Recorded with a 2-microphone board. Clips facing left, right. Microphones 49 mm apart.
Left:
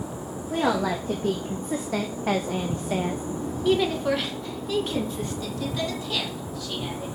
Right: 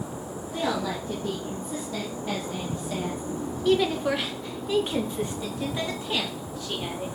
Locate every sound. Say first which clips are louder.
0.5 s a woman speaking: left 4 dB; 65° left (ahead or behind), 2.5 m; by 7.1 s 30° right (ahead or behind), 4 m